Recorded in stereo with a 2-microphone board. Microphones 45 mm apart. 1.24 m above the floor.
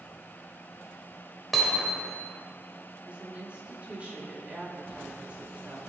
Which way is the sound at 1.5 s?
Centre (ahead or behind).